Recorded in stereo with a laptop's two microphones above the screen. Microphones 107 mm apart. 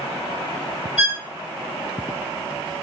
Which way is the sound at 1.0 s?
Centre (ahead or behind).